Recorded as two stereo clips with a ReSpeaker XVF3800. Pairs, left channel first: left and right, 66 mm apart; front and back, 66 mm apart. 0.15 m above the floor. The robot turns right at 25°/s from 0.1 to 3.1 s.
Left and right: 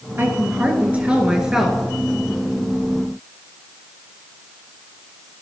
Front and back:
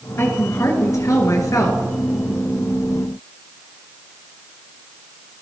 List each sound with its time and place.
0.2 s a woman speaking: 45° right, 2.0 m; by 1.8 s straight ahead, 2.0 m